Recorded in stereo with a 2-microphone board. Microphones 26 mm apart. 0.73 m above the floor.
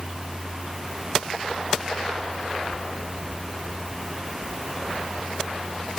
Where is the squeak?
No squeak in this recording.